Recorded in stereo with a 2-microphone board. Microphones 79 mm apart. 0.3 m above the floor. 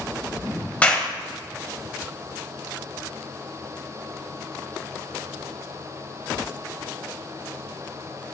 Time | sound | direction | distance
0.8 | a clap | 20° left (ahead or behind) | 1.2 m